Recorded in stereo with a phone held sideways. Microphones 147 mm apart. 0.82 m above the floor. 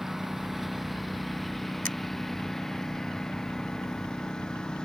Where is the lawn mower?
Centre (ahead or behind); by 4.9 s 5° left (ahead or behind).